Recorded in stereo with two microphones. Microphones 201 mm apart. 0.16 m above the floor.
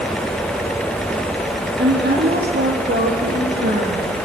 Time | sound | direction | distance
1.8 | a woman speaking | 55° right (ahead or behind) | 7 m